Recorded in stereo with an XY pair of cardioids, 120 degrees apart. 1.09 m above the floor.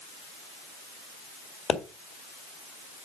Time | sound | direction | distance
1.7 | a pop | 45° left | 1.9 m